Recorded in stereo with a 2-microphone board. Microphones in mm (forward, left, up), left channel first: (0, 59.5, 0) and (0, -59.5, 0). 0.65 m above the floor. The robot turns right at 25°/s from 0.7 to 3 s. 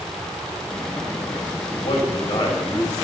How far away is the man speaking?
About 4 m.